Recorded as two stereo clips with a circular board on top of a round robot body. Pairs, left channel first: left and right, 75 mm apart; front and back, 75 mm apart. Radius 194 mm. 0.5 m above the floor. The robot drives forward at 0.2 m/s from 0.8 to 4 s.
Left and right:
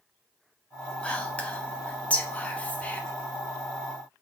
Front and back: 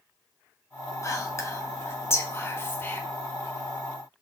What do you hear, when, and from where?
1.0 s whispering: 20° left, 1.4 m; by 3.0 s 35° left, 1.2 m